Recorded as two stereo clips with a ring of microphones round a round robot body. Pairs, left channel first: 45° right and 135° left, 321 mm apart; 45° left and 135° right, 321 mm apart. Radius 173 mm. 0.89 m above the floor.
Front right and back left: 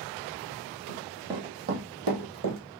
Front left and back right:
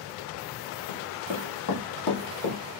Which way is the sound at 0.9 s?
30° left.